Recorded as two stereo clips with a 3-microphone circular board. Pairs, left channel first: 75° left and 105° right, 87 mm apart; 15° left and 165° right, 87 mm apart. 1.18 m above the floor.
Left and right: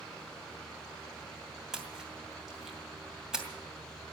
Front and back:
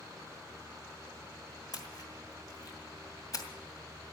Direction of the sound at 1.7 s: 20° right.